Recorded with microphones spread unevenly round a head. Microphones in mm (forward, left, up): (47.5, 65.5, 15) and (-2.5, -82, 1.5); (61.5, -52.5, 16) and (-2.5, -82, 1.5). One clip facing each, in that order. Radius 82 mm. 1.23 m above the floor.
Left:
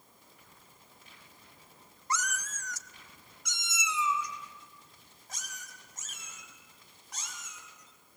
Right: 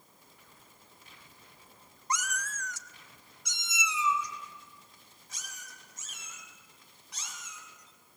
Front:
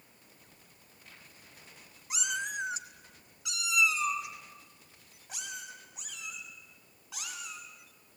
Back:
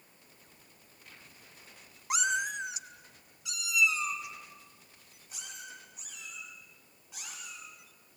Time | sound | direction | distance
2.1 | a cat meowing | straight behind | 0.7 m